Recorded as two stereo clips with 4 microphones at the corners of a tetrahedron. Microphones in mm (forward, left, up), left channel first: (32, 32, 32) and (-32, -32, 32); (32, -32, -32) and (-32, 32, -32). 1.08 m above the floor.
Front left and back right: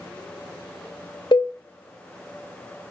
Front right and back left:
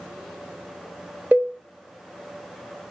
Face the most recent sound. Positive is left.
turn(degrees=65)